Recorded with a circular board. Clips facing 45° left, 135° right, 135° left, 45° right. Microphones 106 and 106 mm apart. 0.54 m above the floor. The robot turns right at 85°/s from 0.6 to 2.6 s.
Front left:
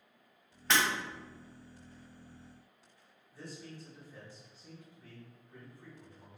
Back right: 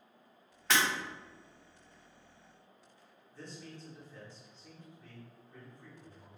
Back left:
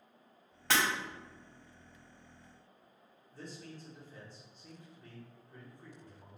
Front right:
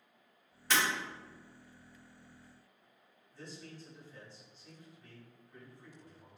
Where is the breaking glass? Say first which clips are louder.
Even, back left 1 dB; 135° left, 1.9 m; by 0.8 s 145° left, 1.9 m.